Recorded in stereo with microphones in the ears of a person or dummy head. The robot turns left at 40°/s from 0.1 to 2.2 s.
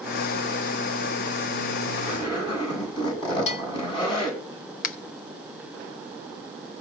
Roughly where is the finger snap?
Left.